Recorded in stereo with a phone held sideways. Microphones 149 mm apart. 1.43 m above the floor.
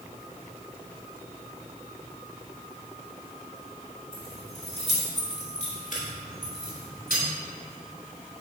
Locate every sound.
4.1 s keys jangling: 35° left (ahead or behind), 1.9 m; by 7.2 s 75° left (ahead or behind), 3 m